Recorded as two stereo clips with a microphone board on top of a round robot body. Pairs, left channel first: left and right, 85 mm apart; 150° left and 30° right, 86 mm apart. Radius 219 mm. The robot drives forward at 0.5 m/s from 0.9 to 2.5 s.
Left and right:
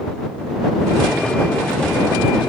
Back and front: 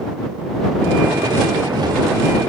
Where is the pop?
I don't hear a pop.